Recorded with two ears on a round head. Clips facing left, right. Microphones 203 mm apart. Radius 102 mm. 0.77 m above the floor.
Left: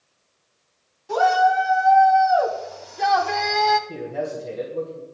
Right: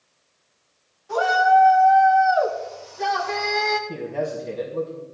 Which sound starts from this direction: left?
A shout, at 1.1 s.